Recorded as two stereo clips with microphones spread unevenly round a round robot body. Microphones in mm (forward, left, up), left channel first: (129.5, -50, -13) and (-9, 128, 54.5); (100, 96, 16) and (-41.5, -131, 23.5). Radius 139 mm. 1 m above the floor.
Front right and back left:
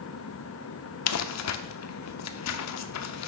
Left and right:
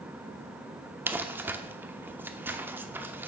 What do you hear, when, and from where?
1.1 s crumpling: 40° right, 0.8 m